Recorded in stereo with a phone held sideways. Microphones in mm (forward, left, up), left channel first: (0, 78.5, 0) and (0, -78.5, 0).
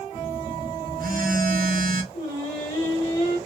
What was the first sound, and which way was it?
A phone buzzing, 65° right (ahead or behind).